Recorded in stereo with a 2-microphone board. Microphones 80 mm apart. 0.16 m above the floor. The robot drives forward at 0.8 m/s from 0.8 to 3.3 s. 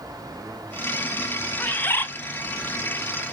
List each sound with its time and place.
1.6 s a bird: 20° left (ahead or behind), 0.7 m; by 2.1 s 25° left (ahead or behind), 0.6 m